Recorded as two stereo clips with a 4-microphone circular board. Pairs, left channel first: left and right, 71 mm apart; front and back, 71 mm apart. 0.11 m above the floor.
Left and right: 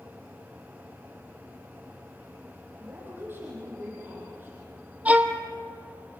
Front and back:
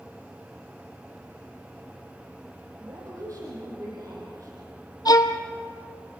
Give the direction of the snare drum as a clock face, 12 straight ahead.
No snare drum in this recording.